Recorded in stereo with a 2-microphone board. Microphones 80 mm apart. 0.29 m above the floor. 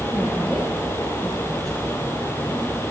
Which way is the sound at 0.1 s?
Centre (ahead or behind).